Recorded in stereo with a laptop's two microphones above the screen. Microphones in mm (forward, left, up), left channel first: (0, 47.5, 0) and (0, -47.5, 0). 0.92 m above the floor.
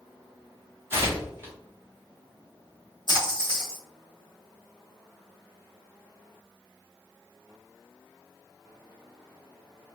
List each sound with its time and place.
0.9 s tearing paper: 25° right (ahead or behind), 1.3 m
3.1 s a splash: 55° right (ahead or behind), 1.7 m